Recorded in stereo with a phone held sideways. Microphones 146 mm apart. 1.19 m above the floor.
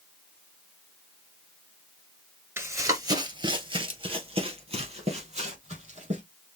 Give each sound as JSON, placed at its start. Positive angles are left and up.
{"t": 2.6, "sound": "running footsteps", "side_deg": -20, "distance_m": 1.3}